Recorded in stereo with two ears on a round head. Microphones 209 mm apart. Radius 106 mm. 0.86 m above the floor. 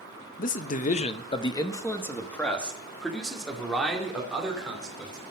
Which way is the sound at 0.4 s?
35° left (ahead or behind).